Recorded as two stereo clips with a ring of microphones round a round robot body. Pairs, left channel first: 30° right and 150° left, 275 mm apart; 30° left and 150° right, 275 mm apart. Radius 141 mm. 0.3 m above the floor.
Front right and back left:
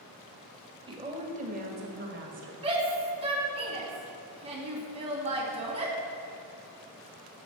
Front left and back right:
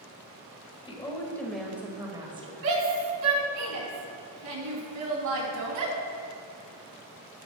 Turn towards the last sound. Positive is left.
turn(degrees=-140)